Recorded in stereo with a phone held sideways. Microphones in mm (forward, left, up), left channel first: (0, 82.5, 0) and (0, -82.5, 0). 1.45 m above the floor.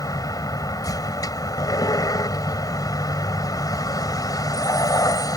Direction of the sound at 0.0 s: 25° left (ahead or behind).